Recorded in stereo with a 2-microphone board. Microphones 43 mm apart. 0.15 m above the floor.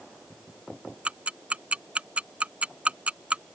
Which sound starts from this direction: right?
Ticking, at 1.1 s.